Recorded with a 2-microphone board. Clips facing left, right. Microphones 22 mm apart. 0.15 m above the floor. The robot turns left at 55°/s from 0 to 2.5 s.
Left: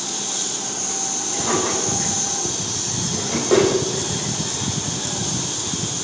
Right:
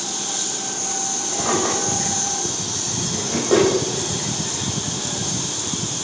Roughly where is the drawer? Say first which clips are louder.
Right 1 dB; right.